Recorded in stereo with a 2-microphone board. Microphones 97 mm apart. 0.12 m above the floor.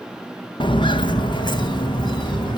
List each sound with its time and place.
0.6 s footsteps: 65° left (ahead or behind), 1.1 m; by 2.6 s 50° left (ahead or behind), 3 m